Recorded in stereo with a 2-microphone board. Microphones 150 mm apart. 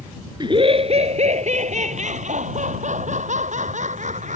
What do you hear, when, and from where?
0.4 s laughter: 30° right (ahead or behind); by 4.4 s 55° right (ahead or behind)